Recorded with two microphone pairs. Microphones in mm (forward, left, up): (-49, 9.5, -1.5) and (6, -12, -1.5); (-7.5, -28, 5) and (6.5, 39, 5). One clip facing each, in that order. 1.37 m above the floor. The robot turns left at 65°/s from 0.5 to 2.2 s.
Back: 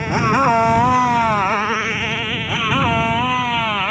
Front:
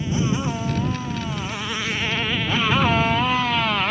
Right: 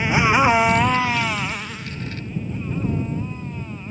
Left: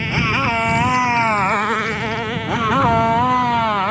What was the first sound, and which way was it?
A motorcycle, 175° right.